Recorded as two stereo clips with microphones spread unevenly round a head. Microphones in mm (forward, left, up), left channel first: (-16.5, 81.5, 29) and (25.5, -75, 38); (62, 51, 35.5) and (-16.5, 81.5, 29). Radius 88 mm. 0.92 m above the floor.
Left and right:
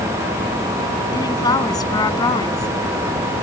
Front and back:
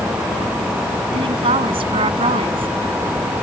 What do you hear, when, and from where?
1.1 s a woman speaking: 170° left